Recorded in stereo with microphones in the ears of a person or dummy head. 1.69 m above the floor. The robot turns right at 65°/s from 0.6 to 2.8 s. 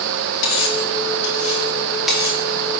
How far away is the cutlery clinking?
About 1.7 m.